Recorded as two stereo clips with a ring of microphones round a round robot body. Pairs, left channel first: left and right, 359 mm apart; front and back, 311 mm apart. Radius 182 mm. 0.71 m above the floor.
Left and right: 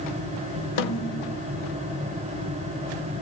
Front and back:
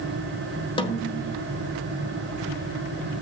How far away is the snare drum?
About 1.6 m.